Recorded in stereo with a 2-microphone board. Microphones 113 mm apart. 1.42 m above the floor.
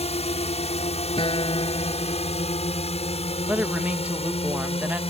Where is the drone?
75° left (ahead or behind); by 5.1 s 65° left (ahead or behind).